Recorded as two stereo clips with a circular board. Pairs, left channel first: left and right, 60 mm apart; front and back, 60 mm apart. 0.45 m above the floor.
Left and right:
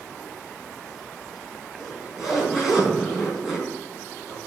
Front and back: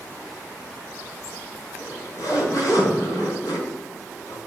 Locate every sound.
1.8 s a zipper: straight ahead, 4.5 m